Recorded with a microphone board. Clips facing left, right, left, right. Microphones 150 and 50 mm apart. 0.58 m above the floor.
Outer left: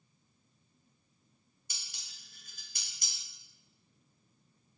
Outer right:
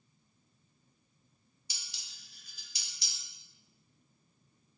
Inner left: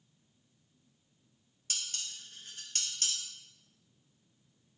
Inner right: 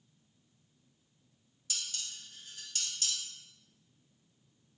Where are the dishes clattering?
50° left (ahead or behind), 0.6 m.